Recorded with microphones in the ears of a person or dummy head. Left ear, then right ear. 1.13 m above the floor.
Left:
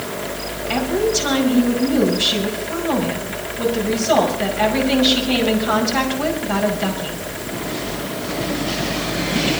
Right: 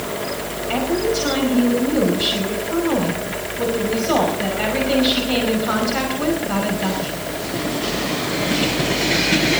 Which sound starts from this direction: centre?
A woman speaking, at 0.7 s.